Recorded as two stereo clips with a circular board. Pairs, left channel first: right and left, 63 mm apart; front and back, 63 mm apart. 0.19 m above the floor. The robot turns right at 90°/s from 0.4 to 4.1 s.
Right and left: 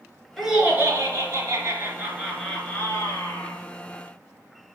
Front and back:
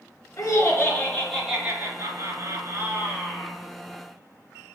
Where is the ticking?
No ticking in this recording.